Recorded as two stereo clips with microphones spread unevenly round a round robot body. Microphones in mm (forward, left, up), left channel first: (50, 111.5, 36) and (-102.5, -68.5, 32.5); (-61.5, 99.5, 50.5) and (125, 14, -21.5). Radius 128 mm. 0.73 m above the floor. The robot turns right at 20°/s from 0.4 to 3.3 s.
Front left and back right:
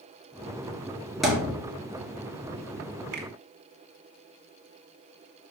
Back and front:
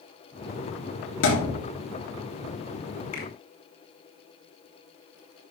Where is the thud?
140° left, 3.5 m; by 1.6 s 150° left, 3.5 m.